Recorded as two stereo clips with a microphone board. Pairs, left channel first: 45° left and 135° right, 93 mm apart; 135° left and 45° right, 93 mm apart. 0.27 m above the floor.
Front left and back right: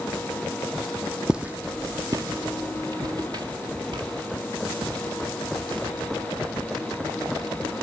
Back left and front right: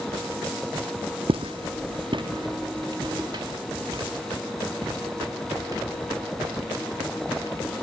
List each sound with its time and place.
1.3 s footsteps: 55° right, 0.8 m; by 7.7 s 100° right, 6.5 m